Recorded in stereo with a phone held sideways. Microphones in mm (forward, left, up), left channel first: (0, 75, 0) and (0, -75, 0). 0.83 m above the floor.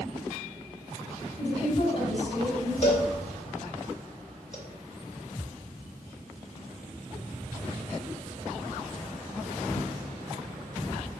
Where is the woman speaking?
50° left (ahead or behind), 2.5 m.